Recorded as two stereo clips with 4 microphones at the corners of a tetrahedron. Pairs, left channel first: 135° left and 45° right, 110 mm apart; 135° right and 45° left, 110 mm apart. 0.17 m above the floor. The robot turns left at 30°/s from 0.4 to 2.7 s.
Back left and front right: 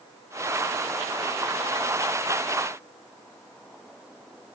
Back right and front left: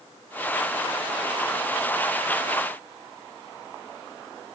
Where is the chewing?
I don't hear chewing.